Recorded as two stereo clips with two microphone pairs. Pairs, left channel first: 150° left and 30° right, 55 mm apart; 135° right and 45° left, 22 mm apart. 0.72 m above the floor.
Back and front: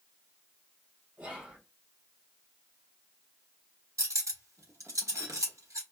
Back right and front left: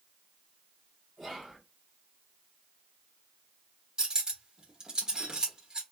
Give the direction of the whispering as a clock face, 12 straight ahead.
1 o'clock.